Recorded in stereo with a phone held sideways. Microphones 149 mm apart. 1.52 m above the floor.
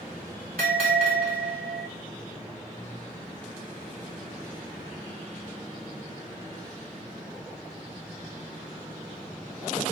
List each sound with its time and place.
0.6 s a bell: 70° right (ahead or behind), 3 m